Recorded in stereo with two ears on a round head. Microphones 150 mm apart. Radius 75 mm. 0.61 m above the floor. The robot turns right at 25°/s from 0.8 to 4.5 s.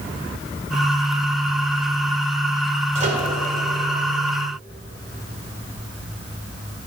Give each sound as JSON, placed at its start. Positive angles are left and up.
{"t": 3.0, "sound": "a microwave", "side_deg": -40, "distance_m": 2.0}